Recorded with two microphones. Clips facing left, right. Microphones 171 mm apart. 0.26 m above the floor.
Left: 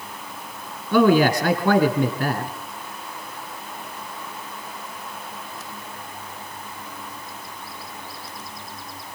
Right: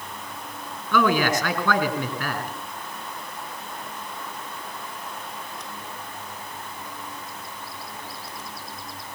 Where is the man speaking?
35° left (ahead or behind), 3 m.